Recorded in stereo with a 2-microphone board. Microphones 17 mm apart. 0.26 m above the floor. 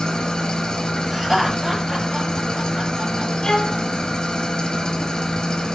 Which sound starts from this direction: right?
Laughter, at 1.1 s.